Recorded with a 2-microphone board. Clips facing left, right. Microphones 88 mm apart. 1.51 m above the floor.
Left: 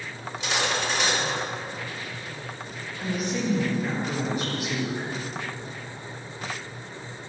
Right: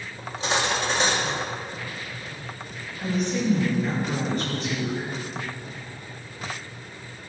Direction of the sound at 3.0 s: 5° left (ahead or behind).